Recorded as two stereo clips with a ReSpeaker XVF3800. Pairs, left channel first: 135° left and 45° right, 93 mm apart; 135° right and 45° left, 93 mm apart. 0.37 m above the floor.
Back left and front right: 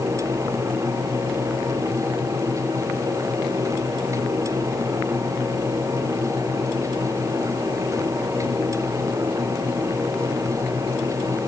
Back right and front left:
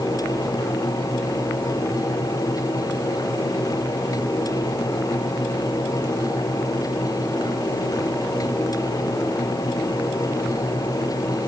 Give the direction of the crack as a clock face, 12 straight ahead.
No crack in this recording.